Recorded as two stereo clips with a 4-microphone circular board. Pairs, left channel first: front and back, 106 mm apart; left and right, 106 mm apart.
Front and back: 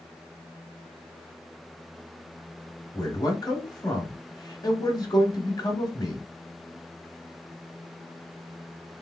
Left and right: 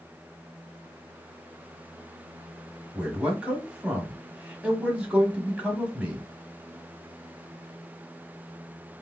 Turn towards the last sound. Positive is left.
turn(degrees=-20)